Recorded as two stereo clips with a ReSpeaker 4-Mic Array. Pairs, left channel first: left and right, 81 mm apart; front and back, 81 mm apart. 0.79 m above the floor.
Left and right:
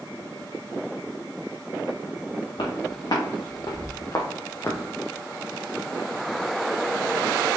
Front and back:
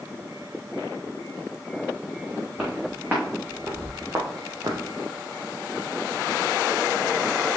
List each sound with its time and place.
2.6 s footsteps: 105° left, 3.5 m; by 4.8 s 155° left, 1.8 m